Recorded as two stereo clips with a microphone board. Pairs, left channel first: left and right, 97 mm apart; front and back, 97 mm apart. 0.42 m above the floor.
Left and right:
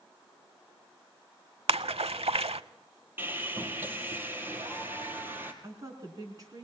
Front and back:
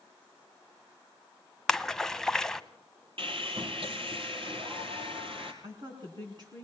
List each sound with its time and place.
1.7 s a splash: 85° right, 0.7 m
3.2 s sawing: 160° right, 2.5 m
5.6 s a woman speaking: 145° right, 3.5 m